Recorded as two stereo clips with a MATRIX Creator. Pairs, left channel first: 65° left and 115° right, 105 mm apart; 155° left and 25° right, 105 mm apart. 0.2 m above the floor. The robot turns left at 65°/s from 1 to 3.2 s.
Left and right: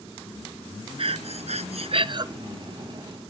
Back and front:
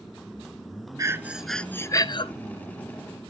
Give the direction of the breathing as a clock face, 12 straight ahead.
3 o'clock.